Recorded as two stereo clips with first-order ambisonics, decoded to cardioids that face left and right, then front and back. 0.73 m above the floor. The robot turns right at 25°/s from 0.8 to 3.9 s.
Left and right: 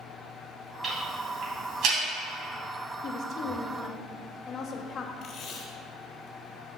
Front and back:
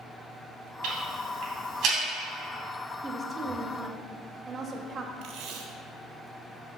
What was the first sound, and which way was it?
Ticking, 160° right.